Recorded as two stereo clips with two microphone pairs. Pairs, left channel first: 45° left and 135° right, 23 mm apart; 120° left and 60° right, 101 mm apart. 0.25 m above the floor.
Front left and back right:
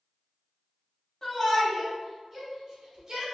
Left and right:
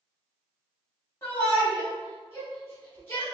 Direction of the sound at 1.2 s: 105° left.